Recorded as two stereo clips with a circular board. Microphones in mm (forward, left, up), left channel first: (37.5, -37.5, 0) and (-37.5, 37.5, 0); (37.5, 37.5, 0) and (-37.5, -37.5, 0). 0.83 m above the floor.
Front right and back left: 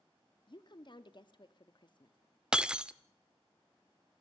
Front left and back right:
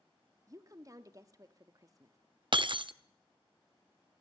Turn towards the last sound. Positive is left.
turn(degrees=-145)